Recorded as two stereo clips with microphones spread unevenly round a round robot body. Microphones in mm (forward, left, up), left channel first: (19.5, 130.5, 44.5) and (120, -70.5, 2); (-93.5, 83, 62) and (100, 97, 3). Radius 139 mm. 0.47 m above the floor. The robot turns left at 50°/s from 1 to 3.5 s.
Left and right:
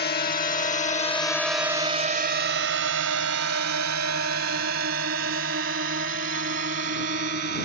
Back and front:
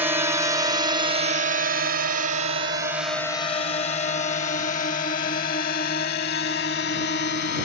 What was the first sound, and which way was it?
A drone, 70° left.